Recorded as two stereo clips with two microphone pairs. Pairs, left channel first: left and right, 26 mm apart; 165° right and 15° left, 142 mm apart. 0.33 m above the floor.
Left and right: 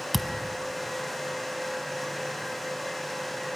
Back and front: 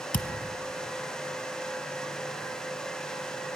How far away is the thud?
About 0.8 m.